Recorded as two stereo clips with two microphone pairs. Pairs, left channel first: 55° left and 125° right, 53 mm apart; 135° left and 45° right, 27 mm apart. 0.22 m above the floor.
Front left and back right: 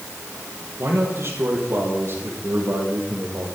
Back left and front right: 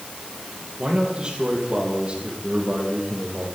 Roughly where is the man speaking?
Right.